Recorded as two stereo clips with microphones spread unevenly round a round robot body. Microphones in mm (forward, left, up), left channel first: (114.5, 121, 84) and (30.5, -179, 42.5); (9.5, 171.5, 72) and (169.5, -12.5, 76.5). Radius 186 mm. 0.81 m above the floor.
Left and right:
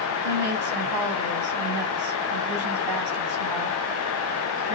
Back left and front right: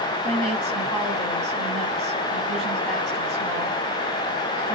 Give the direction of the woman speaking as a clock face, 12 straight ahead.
5 o'clock.